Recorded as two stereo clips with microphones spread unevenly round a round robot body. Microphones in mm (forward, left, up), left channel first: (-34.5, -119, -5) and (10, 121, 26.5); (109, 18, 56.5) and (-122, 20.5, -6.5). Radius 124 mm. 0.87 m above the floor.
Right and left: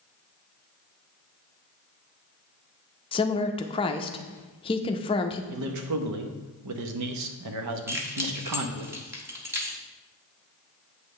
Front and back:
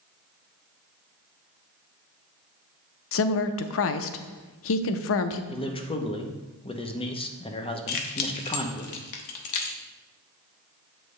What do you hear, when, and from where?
3.1 s a woman speaking: 40° right, 0.6 m
5.5 s a man speaking: 75° left, 0.9 m
7.9 s keys jangling: 5° right, 0.9 m